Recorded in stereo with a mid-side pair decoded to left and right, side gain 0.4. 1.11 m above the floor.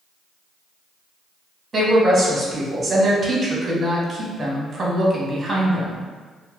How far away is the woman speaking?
About 1.2 m.